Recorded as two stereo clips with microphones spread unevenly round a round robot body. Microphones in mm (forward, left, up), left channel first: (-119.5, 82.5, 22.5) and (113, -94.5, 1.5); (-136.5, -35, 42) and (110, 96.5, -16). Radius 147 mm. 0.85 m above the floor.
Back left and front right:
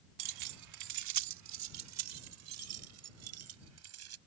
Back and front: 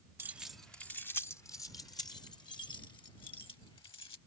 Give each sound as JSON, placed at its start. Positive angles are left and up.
{"t": 0.2, "sound": "keys jangling", "azimuth_deg": -50}